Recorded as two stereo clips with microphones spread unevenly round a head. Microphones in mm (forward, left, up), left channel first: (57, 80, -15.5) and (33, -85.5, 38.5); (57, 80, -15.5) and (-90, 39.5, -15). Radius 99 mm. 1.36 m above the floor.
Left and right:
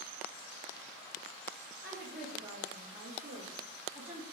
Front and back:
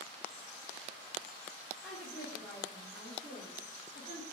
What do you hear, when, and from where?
1.8 s a woman speaking: 70° right, 4 m; by 4.2 s 40° right, 3.5 m